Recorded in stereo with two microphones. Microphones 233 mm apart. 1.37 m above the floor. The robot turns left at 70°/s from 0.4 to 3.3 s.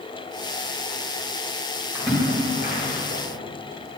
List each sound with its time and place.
1.9 s a splash: 10° right (ahead or behind), 2.5 m; by 3.2 s 75° left (ahead or behind), 2.5 m